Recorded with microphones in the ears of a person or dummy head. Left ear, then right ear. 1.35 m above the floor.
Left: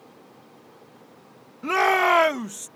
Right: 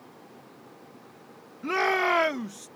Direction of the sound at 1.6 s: 40° left (ahead or behind).